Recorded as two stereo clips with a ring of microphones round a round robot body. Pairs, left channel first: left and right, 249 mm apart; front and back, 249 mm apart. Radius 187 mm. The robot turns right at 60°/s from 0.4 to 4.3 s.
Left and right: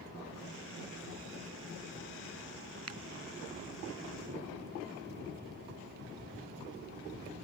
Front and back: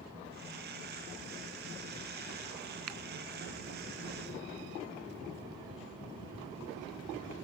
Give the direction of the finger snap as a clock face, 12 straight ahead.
5 o'clock.